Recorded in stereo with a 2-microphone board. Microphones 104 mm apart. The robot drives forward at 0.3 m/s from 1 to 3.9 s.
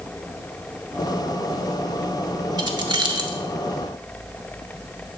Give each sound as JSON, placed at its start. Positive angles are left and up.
{"t": 2.6, "sound": "keys jangling", "side_deg": -45, "distance_m": 0.9}